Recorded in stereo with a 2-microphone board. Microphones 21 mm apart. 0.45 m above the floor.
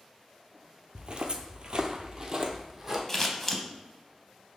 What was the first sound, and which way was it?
Footsteps, 40° right (ahead or behind).